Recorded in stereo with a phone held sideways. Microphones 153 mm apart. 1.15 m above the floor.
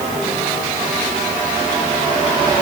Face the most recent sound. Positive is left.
No sound to turn to.